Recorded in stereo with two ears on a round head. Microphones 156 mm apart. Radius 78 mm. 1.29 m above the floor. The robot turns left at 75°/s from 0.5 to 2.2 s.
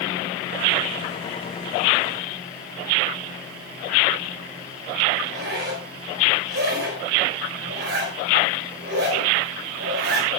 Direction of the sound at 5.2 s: 70° right (ahead or behind).